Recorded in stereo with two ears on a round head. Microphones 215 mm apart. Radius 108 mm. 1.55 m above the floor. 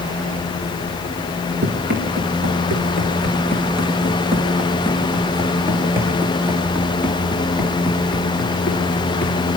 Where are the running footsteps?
40° right (ahead or behind), 7.5 m; by 9.4 s 10° left (ahead or behind), 9 m.